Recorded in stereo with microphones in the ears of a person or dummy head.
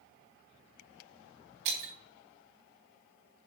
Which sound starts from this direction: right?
Breaking glass, at 1.6 s.